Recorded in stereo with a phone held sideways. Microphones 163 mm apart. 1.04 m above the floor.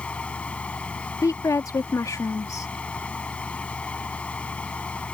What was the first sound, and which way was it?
A fan, 5° left (ahead or behind).